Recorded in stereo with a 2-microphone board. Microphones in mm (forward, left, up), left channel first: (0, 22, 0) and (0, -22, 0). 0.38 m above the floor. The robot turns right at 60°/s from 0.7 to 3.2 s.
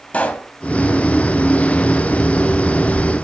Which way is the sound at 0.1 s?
35° left (ahead or behind).